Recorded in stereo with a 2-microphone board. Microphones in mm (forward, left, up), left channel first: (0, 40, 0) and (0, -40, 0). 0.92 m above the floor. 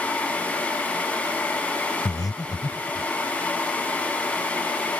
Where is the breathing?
55° left (ahead or behind).